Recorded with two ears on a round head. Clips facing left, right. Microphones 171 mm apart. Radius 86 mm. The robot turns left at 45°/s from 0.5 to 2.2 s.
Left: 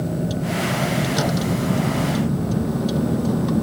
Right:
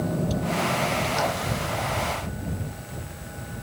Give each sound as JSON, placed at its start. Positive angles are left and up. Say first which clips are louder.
{"t": 0.0, "sound": "a vehicle", "louder": "left 2 dB", "azimuth_deg": 170}